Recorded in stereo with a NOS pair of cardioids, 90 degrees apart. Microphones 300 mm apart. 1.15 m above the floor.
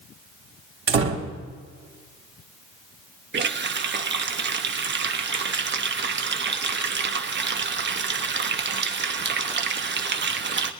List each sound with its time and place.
0.9 s a door slam: 45° right, 2 m
3.3 s a running tap: 35° right, 1.0 m